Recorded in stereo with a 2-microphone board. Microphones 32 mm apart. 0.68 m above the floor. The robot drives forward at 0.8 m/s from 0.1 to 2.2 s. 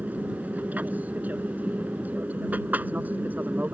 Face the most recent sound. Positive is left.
turn(degrees=-60)  # may be behind; listen again after turning